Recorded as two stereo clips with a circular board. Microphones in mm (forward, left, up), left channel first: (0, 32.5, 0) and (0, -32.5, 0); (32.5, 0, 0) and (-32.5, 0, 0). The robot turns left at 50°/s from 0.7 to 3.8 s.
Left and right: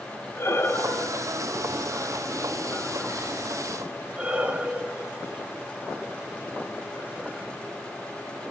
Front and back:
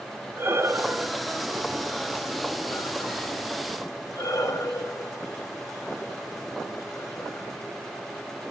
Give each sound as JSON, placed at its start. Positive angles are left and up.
{"t": 0.4, "sound": "breathing", "azimuth_deg": 135, "distance_m": 0.5}